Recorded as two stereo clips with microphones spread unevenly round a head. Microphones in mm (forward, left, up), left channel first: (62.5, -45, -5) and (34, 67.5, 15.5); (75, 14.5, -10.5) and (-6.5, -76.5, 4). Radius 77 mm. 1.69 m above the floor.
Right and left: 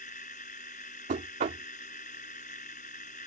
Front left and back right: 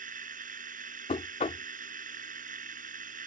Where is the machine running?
125° right.